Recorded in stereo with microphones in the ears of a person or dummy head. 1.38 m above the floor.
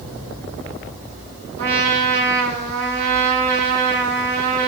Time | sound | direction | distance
1.6 | a trumpet | 35° right (ahead or behind) | 0.8 m